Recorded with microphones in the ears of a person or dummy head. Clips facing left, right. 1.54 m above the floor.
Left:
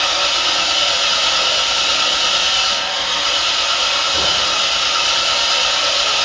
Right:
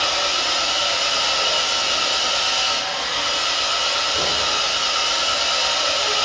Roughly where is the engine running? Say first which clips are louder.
Left 2 dB; left.